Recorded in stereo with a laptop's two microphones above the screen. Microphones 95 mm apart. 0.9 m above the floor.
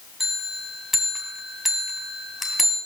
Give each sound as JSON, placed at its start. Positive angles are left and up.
{"t": 0.2, "sound": "a bell", "side_deg": -5, "distance_m": 2.0}